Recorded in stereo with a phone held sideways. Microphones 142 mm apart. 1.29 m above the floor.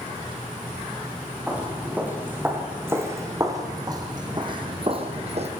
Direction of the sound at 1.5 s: 10° right (ahead or behind).